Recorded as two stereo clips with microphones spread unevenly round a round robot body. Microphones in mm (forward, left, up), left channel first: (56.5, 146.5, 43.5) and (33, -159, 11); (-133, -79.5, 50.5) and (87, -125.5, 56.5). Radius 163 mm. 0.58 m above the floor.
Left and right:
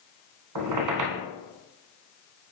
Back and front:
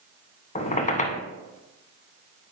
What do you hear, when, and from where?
0.6 s a squeak: 135° right, 0.9 m